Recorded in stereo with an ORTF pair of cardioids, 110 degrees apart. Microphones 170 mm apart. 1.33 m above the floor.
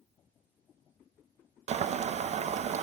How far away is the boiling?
About 0.8 m.